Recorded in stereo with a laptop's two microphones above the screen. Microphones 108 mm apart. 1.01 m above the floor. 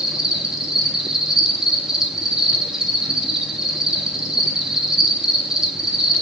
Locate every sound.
0.0 s an insect: 5° right (ahead or behind), 1.7 m